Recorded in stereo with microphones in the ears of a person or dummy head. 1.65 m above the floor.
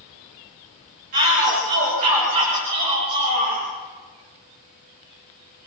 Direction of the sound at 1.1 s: 35° right (ahead or behind).